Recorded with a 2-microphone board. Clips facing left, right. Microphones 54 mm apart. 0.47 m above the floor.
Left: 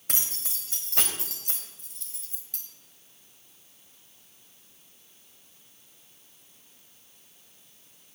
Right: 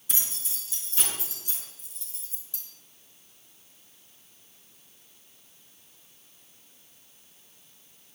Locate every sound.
0.1 s keys jangling: 60° left (ahead or behind), 1.9 m; by 2.6 s 55° left (ahead or behind), 2.5 m